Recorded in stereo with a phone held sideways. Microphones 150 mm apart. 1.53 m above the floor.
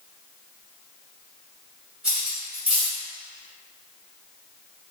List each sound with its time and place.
2.0 s cutlery clinking: 5° right (ahead or behind), 1.8 m